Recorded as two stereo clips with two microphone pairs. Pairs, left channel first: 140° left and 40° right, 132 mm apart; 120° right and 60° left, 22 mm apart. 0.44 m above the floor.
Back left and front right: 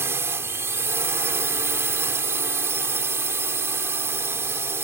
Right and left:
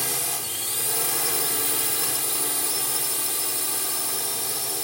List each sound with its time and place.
0.0 s a drone: 30° right